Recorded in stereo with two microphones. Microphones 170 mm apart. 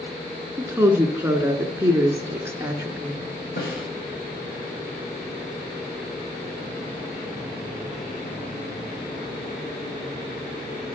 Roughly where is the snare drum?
Left.